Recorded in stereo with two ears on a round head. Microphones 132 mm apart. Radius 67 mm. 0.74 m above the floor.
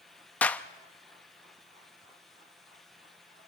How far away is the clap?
About 0.8 m.